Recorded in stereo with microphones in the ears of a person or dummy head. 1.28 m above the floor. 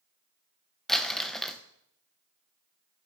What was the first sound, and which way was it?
Crumpling, 5° left (ahead or behind).